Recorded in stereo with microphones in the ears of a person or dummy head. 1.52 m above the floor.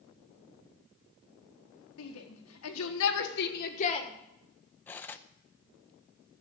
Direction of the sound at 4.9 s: 15° left (ahead or behind).